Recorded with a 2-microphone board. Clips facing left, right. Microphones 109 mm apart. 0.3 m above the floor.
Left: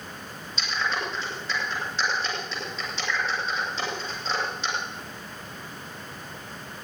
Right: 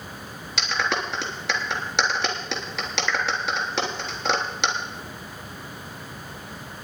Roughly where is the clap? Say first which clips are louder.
Right 3 dB; right.